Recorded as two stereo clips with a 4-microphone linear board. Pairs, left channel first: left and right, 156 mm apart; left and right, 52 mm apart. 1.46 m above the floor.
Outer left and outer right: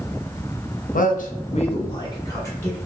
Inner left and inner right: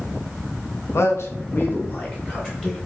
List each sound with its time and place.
0.9 s a man speaking: 60° left (ahead or behind), 0.6 m; by 2.8 s 15° left (ahead or behind), 1.1 m